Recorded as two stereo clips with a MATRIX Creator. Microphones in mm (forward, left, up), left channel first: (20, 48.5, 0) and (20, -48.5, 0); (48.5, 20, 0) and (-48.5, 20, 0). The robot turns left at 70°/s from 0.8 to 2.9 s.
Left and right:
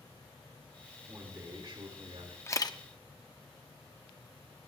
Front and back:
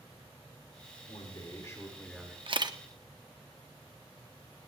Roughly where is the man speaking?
Ahead.